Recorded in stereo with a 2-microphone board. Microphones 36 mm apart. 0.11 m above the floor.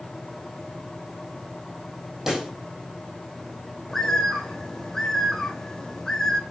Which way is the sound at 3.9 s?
15° left (ahead or behind).